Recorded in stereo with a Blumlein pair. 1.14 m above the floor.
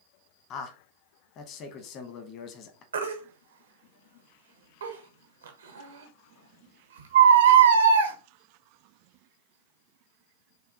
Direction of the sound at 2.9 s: 65° right.